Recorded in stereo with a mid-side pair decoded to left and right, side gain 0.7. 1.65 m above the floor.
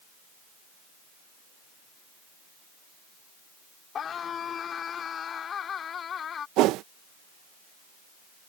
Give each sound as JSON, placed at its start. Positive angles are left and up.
{"t": 4.0, "sound": "a scream", "azimuth_deg": 35}
{"t": 6.6, "sound": "a whoosh", "azimuth_deg": -60}